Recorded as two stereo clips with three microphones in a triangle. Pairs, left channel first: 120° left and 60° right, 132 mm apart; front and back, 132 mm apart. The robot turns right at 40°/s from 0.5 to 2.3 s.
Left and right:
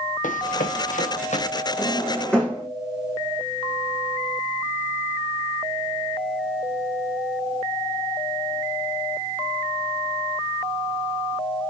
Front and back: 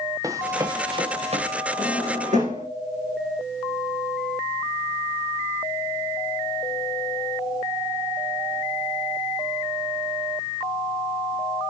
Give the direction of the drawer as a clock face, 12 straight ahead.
6 o'clock.